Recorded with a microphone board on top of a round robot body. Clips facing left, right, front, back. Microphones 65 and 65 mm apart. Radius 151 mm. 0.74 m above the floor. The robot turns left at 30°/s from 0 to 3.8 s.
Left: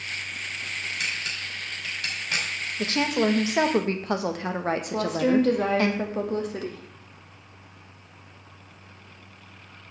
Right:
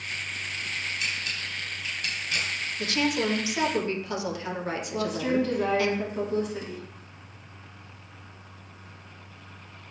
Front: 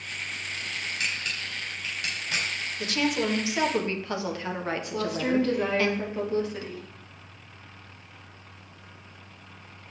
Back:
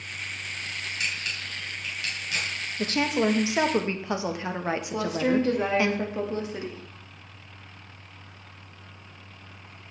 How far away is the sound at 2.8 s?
About 1.2 m.